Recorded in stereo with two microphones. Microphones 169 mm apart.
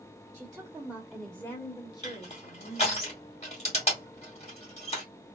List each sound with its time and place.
0.3 s a woman speaking: 25° right (ahead or behind), 1.4 m; by 3.0 s 35° left (ahead or behind), 2.5 m
2.0 s crushing: 40° left (ahead or behind), 2 m